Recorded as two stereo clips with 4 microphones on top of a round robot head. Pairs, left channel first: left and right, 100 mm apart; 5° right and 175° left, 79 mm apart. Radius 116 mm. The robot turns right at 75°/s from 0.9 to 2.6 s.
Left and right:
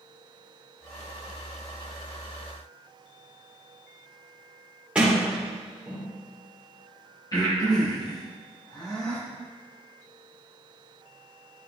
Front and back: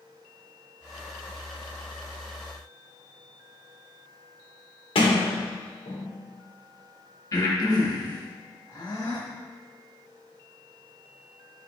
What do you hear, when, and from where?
5.0 s a sliding door: 10° right, 1.6 m
7.3 s breathing: 35° left, 2 m